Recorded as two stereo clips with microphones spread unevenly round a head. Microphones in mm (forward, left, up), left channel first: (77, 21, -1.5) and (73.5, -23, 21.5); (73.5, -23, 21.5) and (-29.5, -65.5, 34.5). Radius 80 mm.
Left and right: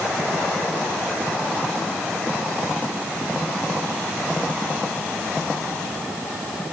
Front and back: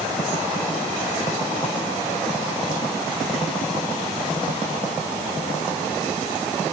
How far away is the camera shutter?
I don't hear a camera shutter.